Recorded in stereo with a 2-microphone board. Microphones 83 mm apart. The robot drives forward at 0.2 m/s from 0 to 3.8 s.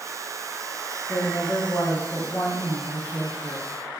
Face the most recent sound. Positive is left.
turn(degrees=25)  # may be behind; listen again after turning